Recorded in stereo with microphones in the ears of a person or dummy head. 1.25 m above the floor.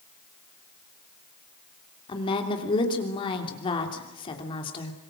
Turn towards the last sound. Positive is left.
turn(degrees=25)  # may be behind; listen again after turning